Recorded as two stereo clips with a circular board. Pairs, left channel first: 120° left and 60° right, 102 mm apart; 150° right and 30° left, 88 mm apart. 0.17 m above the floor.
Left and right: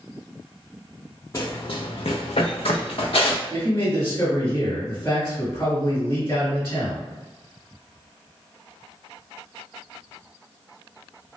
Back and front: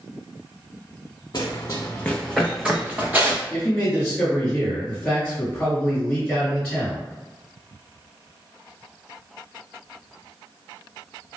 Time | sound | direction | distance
1.3 | running footsteps | 175° left | 0.6 m
3.5 | a man speaking | 150° left | 1.8 m